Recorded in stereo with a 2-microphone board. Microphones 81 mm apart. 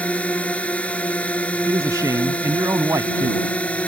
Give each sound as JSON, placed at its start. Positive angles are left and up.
{"t": 0.0, "sound": "a drone", "side_deg": 15}
{"t": 1.7, "sound": "a man speaking", "side_deg": -45}